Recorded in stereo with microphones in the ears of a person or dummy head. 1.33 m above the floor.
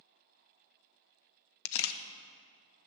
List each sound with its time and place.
1.6 s a camera shutter: 70° left (ahead or behind), 0.5 m